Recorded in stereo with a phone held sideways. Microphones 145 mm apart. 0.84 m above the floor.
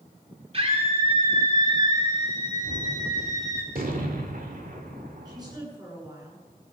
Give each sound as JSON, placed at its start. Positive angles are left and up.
{"t": 0.5, "sound": "a scream", "side_deg": -40, "distance_m": 3.0}
{"t": 2.6, "sound": "a gunshot", "side_deg": -70, "distance_m": 2.0}
{"t": 5.2, "sound": "a woman speaking", "side_deg": -25, "distance_m": 9.5}